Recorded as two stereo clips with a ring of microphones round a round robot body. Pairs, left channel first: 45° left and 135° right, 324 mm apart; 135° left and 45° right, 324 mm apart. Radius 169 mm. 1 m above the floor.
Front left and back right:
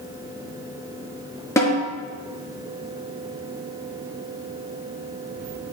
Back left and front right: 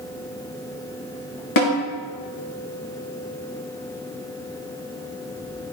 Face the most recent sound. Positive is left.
turn(degrees=125)